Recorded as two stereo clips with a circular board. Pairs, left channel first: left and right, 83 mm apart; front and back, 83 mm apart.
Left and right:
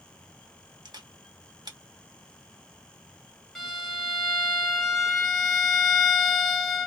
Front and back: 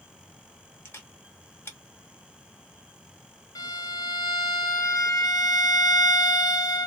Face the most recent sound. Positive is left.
turn(degrees=5)